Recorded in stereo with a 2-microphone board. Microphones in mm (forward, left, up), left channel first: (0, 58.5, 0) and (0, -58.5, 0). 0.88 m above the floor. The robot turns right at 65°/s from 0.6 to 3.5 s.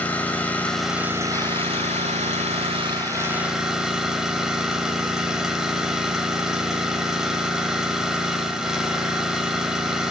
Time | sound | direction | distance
0.0 | an engine running | 165° left | 1.6 m